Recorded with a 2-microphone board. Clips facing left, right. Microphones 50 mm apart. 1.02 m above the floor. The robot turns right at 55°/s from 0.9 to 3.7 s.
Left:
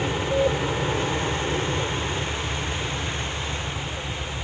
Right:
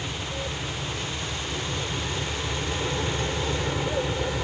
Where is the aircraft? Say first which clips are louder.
Left 10 dB; 100° left; by 4.4 s 110° right.